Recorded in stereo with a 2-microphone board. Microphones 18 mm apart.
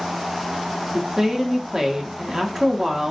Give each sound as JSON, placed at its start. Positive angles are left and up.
{"t": 0.9, "sound": "a woman speaking", "side_deg": -30, "distance_m": 0.9}